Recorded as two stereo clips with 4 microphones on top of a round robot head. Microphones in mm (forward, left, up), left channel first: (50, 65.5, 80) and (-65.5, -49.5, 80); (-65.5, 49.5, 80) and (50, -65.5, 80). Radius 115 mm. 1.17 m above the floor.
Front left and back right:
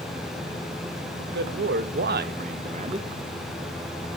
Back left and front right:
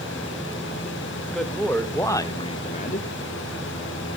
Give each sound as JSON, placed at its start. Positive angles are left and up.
{"t": 1.2, "sound": "a man speaking", "azimuth_deg": -135, "distance_m": 2.0}